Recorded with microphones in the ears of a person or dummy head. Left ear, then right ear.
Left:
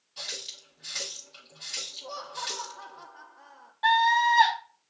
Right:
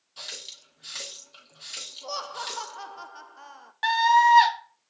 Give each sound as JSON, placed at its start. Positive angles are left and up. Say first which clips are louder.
{"t": 0.2, "sound": "a running tap", "louder": "left 2 dB", "side_deg": -10, "distance_m": 1.2}
{"t": 2.0, "sound": "laughter", "louder": "right 2 dB", "side_deg": -75, "distance_m": 0.6}
{"t": 3.8, "sound": "a scream", "louder": "right 3 dB", "side_deg": -70, "distance_m": 1.5}